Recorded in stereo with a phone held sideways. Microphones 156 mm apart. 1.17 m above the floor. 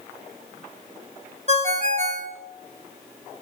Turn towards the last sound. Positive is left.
turn(degrees=-45)  # may be behind; listen again after turning